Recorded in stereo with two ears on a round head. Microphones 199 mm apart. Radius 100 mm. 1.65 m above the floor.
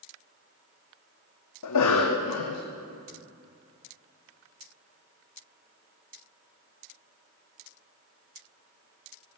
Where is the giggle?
I don't hear a giggle.